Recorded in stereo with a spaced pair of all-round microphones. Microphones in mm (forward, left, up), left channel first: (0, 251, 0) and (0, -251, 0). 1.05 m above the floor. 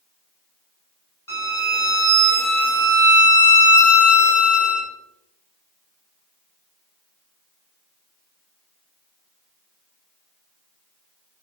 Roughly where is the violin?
Left.